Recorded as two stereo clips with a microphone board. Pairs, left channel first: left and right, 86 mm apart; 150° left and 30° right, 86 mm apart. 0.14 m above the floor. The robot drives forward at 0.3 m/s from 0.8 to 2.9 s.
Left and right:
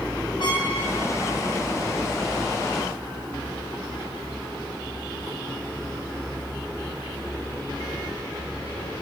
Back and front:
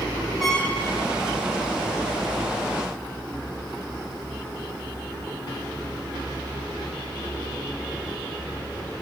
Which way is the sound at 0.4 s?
60° left.